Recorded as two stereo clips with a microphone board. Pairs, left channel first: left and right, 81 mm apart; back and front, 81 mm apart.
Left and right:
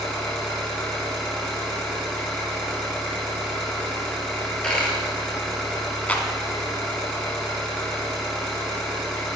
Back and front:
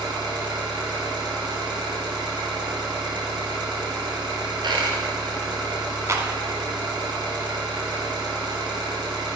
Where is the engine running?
10° left, 2.5 m.